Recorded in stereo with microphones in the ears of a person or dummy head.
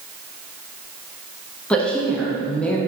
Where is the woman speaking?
5° left (ahead or behind), 0.5 m.